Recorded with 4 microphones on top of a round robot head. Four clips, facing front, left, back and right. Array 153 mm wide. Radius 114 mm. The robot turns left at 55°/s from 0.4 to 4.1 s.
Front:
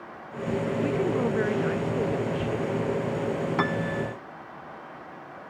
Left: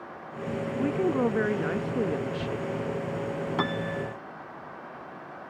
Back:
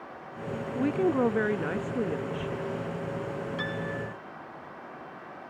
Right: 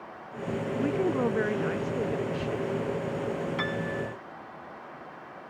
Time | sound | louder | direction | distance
0.8 | a woman speaking | left 1 dB, back 3 dB | 175° right | ?
3.6 | a piano | left 2 dB, front 6 dB | 40° left | ?